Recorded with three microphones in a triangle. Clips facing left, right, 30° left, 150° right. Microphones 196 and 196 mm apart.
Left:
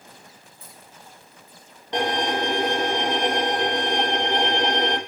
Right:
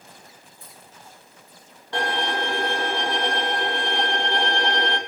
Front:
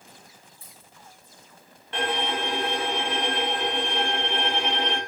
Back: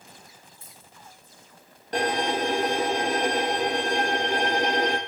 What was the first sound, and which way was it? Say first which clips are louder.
A dropped coin: left 1 dB, back 1 dB; 130° right.